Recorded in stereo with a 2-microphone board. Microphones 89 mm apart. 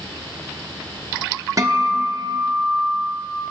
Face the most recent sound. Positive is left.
turn(degrees=-40)  # may be behind; listen again after turning